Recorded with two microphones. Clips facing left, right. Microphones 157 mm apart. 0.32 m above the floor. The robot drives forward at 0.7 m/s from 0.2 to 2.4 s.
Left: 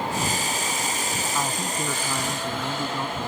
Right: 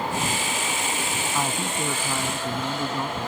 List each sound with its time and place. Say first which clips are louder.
1.3 s a man speaking: right 2 dB; 10° right (ahead or behind); by 3.3 s 5° right (ahead or behind)